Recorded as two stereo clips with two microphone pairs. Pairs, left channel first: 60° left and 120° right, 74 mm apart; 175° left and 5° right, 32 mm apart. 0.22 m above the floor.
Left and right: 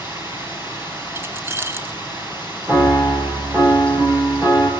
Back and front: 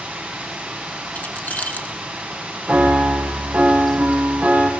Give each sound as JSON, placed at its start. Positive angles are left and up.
{"t": 0.0, "sound": "running water", "azimuth_deg": -60, "distance_m": 8.0}
{"t": 1.1, "sound": "keys jangling", "azimuth_deg": -170, "distance_m": 1.7}
{"t": 2.7, "sound": "a piano", "azimuth_deg": -55, "distance_m": 4.0}